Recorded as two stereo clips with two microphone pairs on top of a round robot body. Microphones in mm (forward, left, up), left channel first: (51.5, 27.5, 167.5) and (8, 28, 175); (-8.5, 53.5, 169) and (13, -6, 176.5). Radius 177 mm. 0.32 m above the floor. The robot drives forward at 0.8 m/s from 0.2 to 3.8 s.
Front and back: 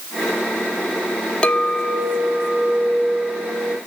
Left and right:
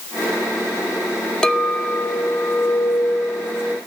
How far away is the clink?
About 1.2 m.